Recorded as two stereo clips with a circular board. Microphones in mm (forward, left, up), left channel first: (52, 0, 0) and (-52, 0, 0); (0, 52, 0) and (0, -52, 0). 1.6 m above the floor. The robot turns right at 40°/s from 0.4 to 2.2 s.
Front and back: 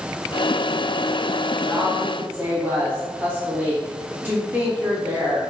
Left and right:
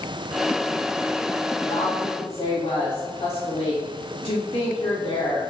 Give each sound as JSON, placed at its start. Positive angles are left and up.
{"t": 1.6, "sound": "a woman speaking", "azimuth_deg": 85, "distance_m": 2.5}